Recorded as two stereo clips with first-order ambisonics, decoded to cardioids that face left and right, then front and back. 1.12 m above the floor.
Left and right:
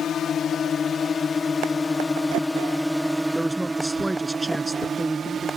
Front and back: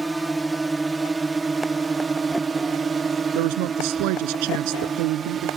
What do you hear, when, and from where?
0.0 s a drone: 100° left; by 5.6 s 130° right
3.4 s a woman speaking: 175° right